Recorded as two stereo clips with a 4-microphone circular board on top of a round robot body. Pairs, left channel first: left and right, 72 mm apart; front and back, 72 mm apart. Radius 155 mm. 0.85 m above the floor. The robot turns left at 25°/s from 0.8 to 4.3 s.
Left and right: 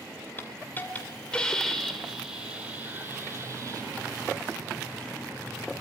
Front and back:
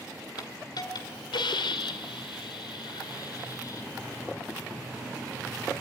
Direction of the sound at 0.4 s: 25° left.